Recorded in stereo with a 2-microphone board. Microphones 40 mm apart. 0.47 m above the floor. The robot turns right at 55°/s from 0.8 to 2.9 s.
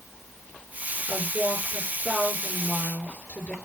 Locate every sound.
1.1 s a woman speaking: 65° right, 7 m; by 3.5 s 35° left, 7 m